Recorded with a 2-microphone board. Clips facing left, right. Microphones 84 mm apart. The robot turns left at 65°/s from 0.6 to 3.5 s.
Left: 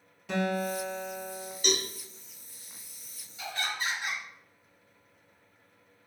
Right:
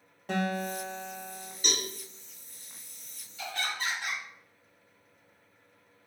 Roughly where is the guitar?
Behind right.